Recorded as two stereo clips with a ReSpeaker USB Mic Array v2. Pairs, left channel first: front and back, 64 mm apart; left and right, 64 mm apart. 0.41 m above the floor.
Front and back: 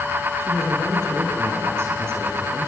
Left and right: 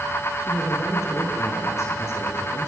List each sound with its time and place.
0.4 s a man speaking: 130° left, 6.5 m